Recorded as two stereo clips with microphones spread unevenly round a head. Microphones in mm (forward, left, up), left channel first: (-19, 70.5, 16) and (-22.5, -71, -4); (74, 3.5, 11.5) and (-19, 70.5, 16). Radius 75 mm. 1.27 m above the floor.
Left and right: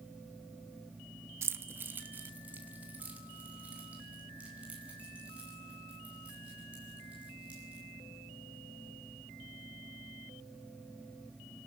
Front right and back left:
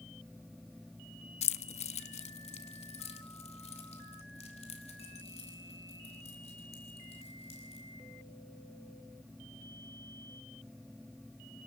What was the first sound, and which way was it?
Keys jangling, 15° right.